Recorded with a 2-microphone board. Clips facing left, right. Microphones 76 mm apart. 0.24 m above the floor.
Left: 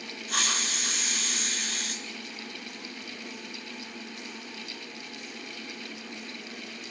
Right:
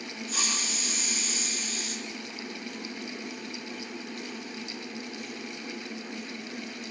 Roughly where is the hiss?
Left.